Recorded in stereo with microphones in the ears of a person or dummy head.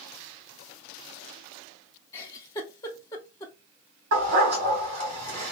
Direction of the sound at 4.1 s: 50° right (ahead or behind).